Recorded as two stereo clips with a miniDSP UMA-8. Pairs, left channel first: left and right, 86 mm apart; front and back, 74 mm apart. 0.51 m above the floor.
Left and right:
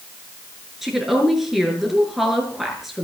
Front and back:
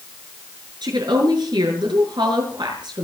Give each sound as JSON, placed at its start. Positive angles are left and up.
{"t": 0.8, "sound": "a woman speaking", "azimuth_deg": -175, "distance_m": 6.5}